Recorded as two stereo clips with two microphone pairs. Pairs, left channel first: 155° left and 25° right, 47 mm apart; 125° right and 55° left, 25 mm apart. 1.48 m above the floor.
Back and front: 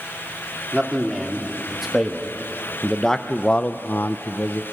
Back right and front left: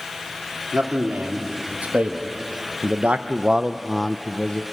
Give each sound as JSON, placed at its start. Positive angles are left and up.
{"t": 0.7, "sound": "a man speaking", "azimuth_deg": 60, "distance_m": 3.0}